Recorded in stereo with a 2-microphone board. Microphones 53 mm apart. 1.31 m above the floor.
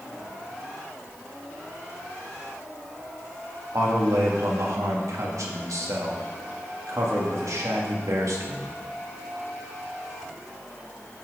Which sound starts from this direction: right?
A man speaking, at 3.7 s.